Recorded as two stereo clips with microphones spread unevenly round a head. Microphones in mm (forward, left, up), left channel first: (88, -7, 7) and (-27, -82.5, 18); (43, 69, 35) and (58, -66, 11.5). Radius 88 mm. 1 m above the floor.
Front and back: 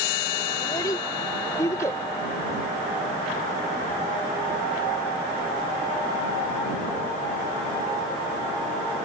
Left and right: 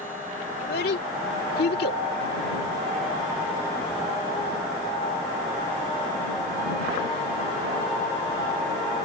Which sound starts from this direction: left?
A child speaking, at 0.6 s.